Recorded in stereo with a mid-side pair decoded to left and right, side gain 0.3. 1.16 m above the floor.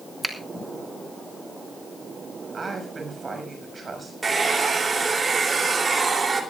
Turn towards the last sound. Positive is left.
turn(degrees=-50)